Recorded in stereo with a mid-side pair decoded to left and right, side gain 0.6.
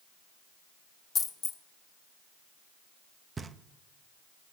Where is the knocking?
25° right, 0.8 m.